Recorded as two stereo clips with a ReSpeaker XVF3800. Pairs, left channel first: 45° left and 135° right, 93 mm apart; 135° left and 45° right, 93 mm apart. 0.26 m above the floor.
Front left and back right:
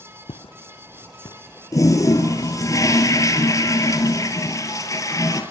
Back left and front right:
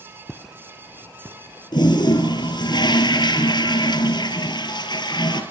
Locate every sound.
0.3 s footsteps: 50° left, 0.9 m; by 2.7 s 20° right, 1.8 m
1.7 s a toilet flushing: 100° left, 3 m